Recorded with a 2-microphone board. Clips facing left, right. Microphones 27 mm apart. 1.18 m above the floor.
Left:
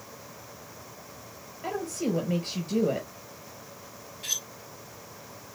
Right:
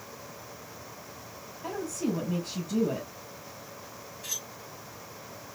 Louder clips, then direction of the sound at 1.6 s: Left 2 dB; 85° left.